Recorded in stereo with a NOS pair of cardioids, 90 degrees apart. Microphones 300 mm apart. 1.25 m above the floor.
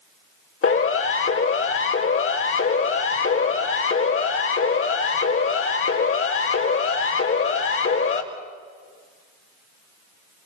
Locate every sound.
0.6 s a siren: 45° left, 4.5 m